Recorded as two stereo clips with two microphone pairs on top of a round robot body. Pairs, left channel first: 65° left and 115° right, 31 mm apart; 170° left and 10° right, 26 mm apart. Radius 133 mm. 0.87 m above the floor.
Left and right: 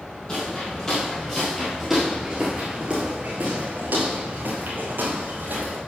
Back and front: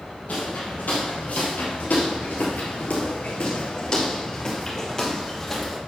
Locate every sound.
0.3 s footsteps: 135° left, 2 m; by 5.8 s 110° right, 2 m